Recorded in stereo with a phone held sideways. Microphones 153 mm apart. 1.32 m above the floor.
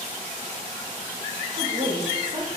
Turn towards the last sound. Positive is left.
turn(degrees=-60)  # may be behind; listen again after turning